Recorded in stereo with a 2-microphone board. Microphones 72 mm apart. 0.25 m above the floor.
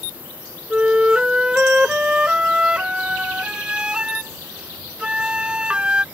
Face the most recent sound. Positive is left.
turn(degrees=-15)  # may be behind; listen again after turning